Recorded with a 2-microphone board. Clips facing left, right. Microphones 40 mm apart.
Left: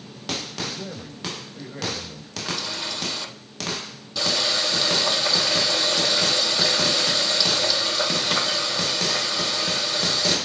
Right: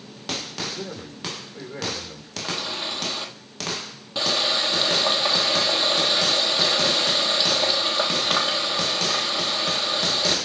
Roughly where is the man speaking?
Right.